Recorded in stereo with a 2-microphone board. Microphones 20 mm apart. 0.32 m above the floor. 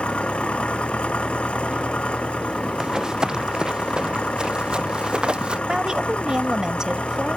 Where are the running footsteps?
35° right (ahead or behind); by 5.6 s 55° right (ahead or behind).